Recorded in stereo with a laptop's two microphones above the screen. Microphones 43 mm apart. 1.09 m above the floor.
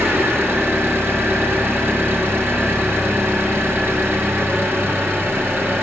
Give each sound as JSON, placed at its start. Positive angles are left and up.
{"t": 0.0, "sound": "an engine running", "side_deg": -70, "distance_m": 0.9}